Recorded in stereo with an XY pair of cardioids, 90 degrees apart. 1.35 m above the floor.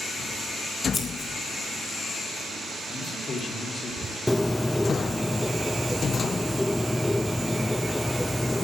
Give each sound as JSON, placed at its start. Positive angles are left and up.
{"t": 0.9, "sound": "scissors", "azimuth_deg": 45, "distance_m": 3.5}
{"t": 2.9, "sound": "a man speaking", "azimuth_deg": 55, "distance_m": 4.0}
{"t": 4.3, "sound": "a bird", "azimuth_deg": 10, "distance_m": 0.5}